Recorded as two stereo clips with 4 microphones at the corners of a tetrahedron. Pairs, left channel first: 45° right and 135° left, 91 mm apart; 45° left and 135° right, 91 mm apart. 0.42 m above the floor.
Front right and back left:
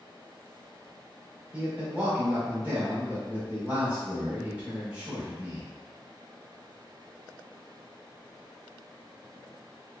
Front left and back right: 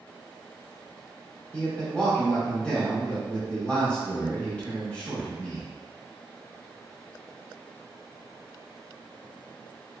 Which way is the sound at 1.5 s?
95° left.